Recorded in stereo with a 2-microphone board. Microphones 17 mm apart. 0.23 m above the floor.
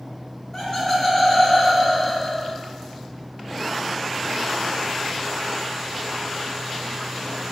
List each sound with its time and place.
0.5 s laughter: 20° left (ahead or behind), 1.0 m; by 2.6 s 20° right (ahead or behind), 1.3 m